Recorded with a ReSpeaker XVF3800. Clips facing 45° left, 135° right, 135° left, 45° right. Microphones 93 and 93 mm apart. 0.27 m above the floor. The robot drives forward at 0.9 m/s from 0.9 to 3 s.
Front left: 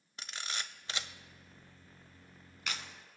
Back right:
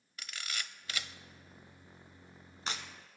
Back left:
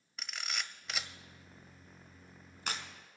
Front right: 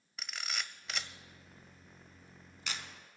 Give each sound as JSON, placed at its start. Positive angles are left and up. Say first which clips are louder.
{"t": 0.2, "sound": "a camera shutter", "louder": "front left 1 dB, even", "azimuth_deg": 45, "distance_m": 0.6}